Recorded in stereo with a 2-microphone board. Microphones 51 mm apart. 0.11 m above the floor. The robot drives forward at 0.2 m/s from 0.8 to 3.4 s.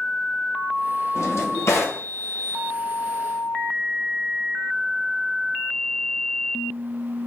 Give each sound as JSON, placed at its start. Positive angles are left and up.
{"t": 1.1, "sound": "a drawer", "side_deg": 70, "distance_m": 1.4}